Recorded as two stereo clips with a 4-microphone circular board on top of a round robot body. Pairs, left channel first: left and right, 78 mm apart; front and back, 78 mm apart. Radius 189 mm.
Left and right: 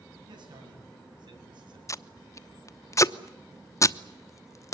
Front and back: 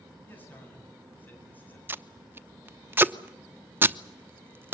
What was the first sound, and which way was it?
A man speaking, 65° right.